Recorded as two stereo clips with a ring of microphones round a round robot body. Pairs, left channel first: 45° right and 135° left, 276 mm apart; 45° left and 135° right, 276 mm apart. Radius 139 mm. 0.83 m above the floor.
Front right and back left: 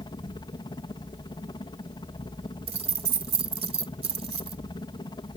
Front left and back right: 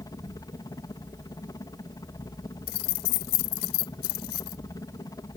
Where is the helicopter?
5° right.